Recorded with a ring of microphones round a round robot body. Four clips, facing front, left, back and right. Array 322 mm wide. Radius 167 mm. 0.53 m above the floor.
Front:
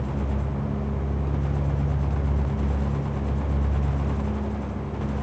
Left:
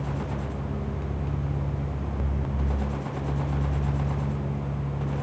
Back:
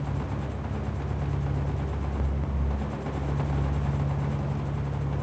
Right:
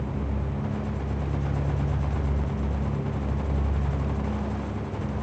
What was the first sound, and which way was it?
Only background noise.